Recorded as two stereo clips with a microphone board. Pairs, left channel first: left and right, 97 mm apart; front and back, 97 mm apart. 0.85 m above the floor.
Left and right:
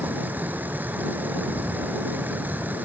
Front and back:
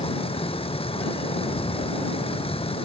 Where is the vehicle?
15° right.